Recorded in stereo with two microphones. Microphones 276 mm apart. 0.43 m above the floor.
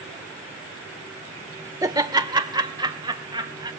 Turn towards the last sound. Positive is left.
turn(degrees=-15)  # may be behind; listen again after turning